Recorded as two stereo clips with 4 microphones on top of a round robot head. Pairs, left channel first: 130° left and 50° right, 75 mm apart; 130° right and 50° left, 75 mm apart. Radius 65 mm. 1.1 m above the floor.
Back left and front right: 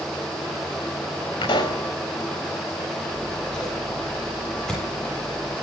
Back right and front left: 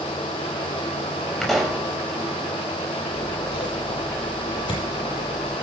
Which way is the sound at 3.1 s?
145° right.